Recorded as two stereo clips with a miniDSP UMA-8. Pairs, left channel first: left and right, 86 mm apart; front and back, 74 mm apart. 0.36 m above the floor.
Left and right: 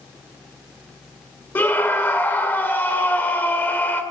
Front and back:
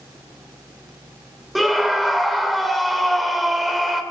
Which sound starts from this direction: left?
A scream, at 1.6 s.